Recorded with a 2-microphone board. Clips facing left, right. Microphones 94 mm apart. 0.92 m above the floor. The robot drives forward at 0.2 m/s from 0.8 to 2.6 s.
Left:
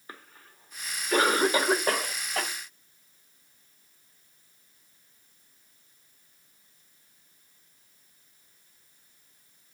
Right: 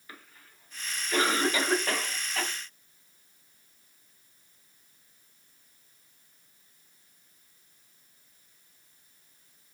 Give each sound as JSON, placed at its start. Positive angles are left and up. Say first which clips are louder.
{"t": 0.1, "sound": "a cough", "louder": "left 3 dB", "side_deg": 35, "distance_m": 1.3}